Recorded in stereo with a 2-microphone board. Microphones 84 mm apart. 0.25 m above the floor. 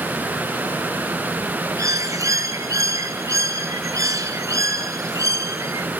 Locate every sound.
1.8 s a bird: 40° right (ahead or behind), 1.1 m